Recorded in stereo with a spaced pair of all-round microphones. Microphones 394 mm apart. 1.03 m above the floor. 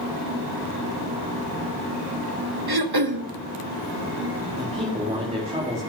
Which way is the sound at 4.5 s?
15° right (ahead or behind).